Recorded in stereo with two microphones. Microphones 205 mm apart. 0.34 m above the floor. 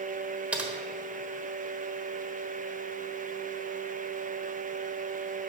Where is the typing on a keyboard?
5° right (ahead or behind), 1.2 m.